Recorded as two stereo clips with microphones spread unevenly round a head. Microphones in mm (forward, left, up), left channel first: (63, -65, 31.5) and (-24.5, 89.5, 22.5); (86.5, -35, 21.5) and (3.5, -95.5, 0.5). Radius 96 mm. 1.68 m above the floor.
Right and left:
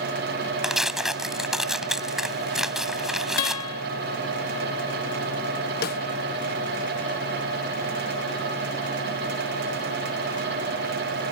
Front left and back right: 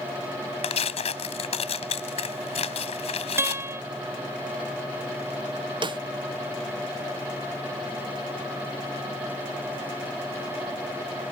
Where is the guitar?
75° right.